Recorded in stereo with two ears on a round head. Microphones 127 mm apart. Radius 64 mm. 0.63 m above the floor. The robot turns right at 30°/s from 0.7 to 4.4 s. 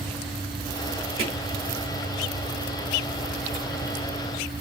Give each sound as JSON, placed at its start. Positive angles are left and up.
{"t": 1.2, "sound": "hammering", "side_deg": -45, "distance_m": 3.5}